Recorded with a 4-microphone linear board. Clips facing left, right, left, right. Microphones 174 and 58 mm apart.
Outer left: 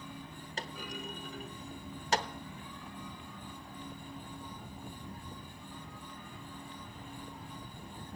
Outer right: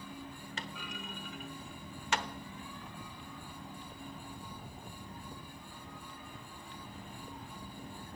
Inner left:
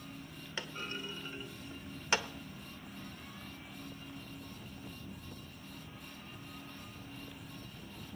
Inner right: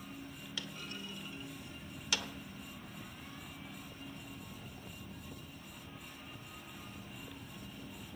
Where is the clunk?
35° left (ahead or behind), 1.0 m.